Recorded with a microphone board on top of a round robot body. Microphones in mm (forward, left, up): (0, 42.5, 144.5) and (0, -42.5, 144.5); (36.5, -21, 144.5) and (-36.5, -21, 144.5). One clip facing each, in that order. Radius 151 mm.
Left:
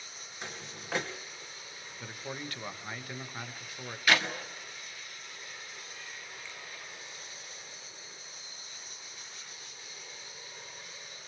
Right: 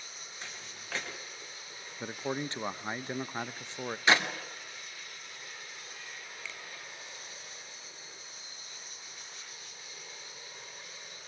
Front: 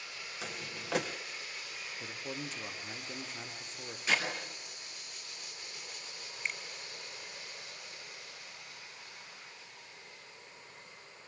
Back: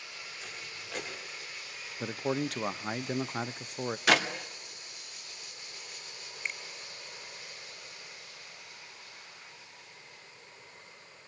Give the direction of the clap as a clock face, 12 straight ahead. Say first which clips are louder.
Right 1 dB, back 6 dB; 5 o'clock.